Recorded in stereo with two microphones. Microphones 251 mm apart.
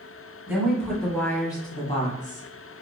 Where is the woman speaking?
10° right (ahead or behind), 1.5 m; by 2.8 s 40° left (ahead or behind), 1.6 m.